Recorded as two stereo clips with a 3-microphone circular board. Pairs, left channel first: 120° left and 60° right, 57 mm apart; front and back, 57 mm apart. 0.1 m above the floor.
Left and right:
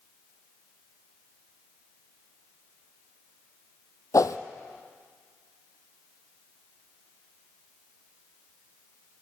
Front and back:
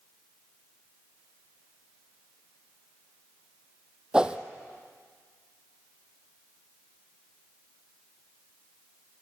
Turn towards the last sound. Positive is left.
turn(degrees=105)